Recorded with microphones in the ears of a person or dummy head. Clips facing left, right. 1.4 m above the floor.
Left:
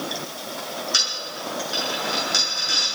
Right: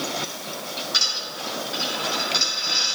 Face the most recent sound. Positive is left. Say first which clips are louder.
# left 1 dB
turn(degrees=45)  # may be behind; listen again after turning